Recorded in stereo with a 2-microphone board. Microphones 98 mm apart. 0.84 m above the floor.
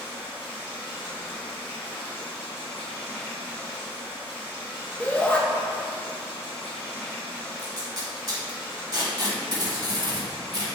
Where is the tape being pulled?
45° right (ahead or behind), 0.9 m.